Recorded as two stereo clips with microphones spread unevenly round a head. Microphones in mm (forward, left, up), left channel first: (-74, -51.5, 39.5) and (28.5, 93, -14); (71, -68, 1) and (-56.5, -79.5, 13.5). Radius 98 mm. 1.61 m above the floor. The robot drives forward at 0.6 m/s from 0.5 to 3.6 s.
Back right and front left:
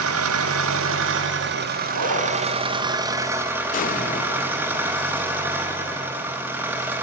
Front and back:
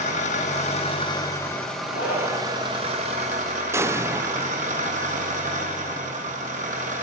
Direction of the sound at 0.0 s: 55° left.